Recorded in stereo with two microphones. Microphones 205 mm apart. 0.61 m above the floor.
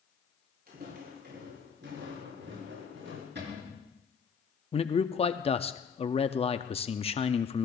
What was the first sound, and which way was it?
Footsteps, 50° right (ahead or behind).